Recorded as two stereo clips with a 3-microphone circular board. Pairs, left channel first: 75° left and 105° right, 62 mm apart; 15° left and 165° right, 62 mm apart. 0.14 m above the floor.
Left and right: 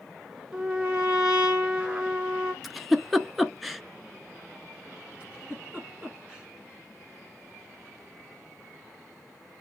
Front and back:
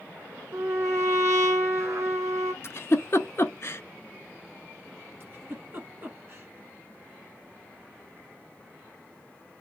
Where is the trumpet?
170° right, 1.5 m.